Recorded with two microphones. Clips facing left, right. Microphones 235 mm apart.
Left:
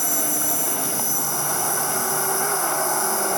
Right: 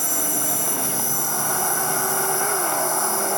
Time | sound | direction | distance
0.0 | an insect | 60° right (ahead or behind) | 3.5 m